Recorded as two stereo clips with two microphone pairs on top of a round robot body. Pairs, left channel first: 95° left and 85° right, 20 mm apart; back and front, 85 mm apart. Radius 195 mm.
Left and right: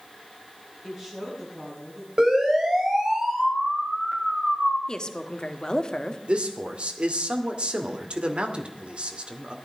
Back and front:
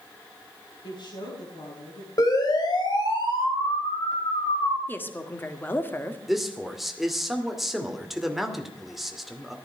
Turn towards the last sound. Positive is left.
turn(degrees=-85)